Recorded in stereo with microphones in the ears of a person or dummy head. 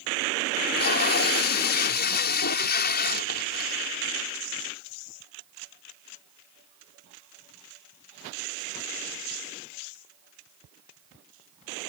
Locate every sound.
0.6 s tape being pulled: 55° left (ahead or behind)